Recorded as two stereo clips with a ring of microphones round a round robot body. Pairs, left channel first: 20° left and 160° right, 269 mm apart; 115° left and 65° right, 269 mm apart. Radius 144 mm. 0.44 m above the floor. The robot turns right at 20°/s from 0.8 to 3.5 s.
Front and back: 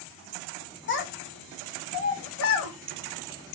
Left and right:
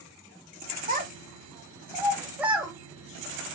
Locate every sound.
0.9 s a child speaking: 15° right, 0.9 m; by 2.7 s 25° left, 0.9 m